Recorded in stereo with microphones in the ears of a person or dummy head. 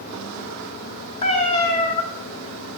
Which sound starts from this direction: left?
A cat meowing, at 1.2 s.